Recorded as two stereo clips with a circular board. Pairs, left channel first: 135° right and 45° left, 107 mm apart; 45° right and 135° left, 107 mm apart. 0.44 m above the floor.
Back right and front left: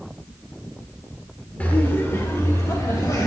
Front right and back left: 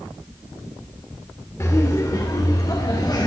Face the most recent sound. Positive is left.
turn(degrees=-85)